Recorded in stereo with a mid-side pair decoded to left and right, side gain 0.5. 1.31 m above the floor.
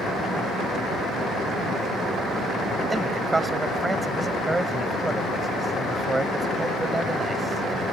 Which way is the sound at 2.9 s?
20° right.